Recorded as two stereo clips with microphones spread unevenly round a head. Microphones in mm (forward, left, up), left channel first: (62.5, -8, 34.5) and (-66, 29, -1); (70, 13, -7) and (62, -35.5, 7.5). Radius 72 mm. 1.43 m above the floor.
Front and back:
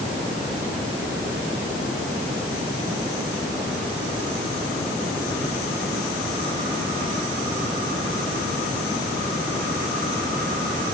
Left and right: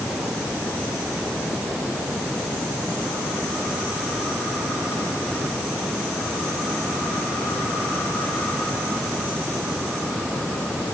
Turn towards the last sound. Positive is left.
No sound to turn to.